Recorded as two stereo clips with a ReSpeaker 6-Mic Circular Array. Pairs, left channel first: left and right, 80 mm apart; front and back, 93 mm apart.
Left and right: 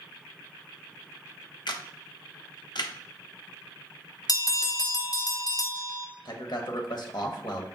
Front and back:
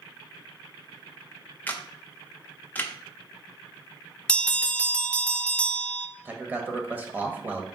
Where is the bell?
70° left, 0.6 m.